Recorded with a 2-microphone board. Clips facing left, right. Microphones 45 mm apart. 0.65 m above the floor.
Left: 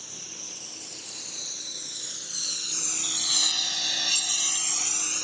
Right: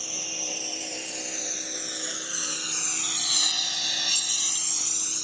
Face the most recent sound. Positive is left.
turn(degrees=55)  # may be behind; listen again after turning